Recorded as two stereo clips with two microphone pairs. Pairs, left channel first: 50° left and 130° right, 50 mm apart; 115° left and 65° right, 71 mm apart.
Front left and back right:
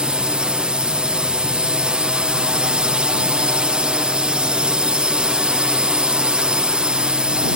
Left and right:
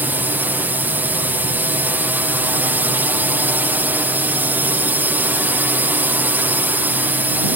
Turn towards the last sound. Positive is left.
turn(degrees=-85)